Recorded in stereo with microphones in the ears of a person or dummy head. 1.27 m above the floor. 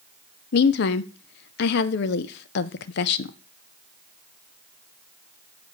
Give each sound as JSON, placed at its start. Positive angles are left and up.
{"t": 0.5, "sound": "a woman speaking", "side_deg": 60, "distance_m": 0.6}